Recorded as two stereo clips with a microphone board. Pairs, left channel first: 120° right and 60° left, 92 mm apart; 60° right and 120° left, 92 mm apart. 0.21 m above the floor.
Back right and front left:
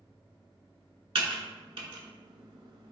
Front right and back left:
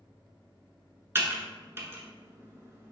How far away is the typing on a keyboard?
About 0.6 m.